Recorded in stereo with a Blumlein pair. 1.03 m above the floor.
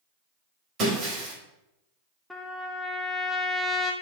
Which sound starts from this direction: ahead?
A trumpet, at 2.3 s.